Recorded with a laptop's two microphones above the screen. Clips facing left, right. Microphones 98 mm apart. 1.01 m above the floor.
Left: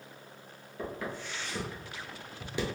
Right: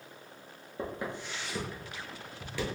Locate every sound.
0.8 s footsteps: 25° right (ahead or behind), 1.2 m; by 2.6 s 20° left (ahead or behind), 1.1 m